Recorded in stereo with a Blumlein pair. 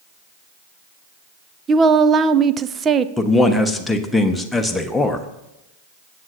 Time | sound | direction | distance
1.7 | a woman speaking | 20° right | 0.5 m
3.2 | a man speaking | 5° left | 1.1 m